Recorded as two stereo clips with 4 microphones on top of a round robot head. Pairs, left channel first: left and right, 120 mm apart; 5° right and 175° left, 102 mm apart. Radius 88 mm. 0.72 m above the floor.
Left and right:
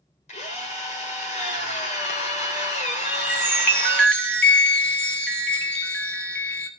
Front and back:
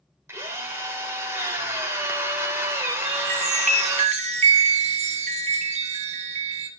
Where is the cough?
No cough in this recording.